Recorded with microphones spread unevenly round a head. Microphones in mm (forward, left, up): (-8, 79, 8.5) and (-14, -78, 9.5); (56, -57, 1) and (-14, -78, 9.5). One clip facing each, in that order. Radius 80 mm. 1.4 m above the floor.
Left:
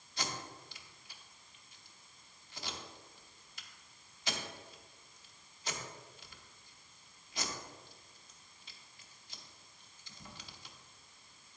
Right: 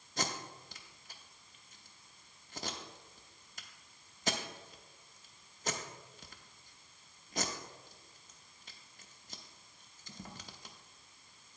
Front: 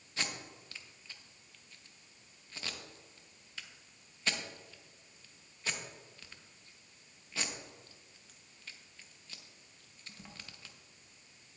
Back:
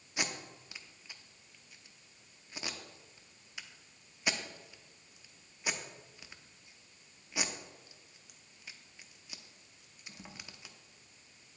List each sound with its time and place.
0.2 s tape being pulled: 105° right, 0.8 m